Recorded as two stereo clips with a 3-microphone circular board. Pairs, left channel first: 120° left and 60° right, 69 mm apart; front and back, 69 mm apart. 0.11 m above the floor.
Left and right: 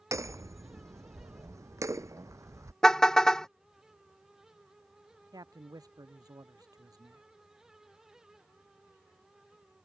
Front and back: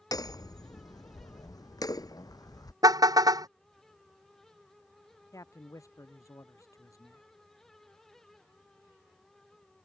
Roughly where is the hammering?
Ahead.